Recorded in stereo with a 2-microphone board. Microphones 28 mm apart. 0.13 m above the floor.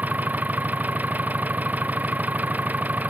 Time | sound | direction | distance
0.0 | an engine running | 80° right | ?